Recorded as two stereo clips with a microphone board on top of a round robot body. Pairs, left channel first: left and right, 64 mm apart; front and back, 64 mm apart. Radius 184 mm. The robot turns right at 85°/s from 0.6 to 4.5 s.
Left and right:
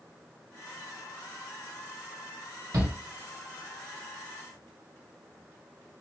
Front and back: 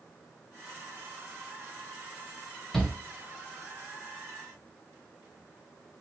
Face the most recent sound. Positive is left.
turn(degrees=70)